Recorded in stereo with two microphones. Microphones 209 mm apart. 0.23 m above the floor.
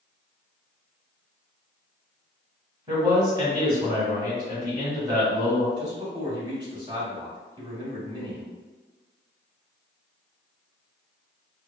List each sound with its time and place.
2.9 s a man speaking: 20° right (ahead or behind), 1.2 m
5.8 s a man speaking: 20° right (ahead or behind), 0.9 m